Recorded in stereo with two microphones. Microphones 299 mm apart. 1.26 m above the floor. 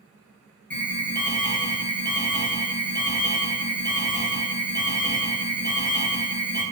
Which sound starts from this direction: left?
An alarm, at 0.7 s.